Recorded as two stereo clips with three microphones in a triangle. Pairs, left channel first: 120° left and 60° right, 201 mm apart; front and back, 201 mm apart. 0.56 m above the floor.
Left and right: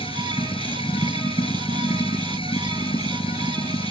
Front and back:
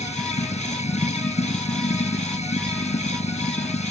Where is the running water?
55° left.